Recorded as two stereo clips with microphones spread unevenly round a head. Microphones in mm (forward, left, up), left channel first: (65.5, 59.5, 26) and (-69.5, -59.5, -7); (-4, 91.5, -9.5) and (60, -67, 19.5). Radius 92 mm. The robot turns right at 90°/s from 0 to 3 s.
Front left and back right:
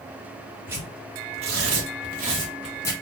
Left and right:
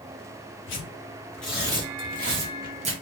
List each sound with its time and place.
0.7 s tearing paper: 135° left, 0.9 m; by 2.9 s 25° right, 0.9 m